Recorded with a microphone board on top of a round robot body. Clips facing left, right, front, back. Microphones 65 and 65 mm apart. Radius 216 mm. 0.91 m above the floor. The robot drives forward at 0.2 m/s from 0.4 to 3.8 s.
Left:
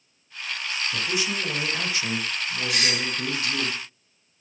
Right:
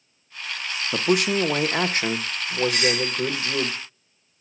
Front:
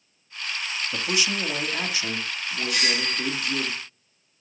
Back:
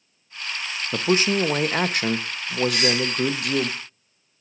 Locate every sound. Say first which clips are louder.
0.9 s a man speaking: right 10 dB, back 8 dB; 120° right, 0.7 m; by 3.7 s 150° right, 1.0 m
2.7 s a doorbell: right 3 dB, back 3 dB; 125° left, 8 m